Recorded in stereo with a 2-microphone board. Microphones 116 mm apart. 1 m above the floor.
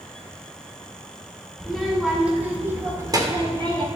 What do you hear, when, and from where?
1.6 s a child speaking: centre (ahead or behind), 2.5 m; by 3.9 s 50° right (ahead or behind), 2 m